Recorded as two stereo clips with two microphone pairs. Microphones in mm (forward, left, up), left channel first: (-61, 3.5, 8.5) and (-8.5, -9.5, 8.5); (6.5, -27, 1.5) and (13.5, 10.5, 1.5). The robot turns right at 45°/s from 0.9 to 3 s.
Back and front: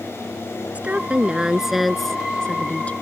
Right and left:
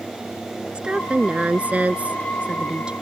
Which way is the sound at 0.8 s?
35° left.